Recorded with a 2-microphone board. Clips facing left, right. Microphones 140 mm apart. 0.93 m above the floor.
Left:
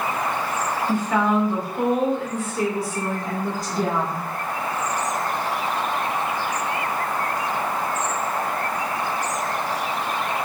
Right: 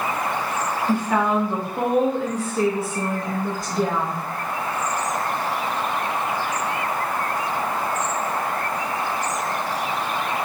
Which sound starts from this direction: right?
A woman speaking, at 0.9 s.